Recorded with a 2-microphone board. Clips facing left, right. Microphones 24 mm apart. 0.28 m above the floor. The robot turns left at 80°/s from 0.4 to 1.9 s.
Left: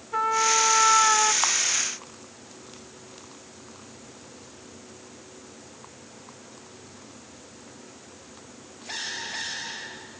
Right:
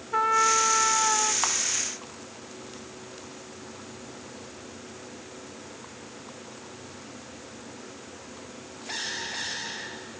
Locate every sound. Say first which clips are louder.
0.1 s a trumpet: right 1 dB; 170° right, 0.6 m; by 1.3 s 115° left, 0.6 m
1.4 s a camera shutter: left 3 dB; 10° left (ahead or behind), 1.0 m; by 1.5 s 5° left (ahead or behind), 1.0 m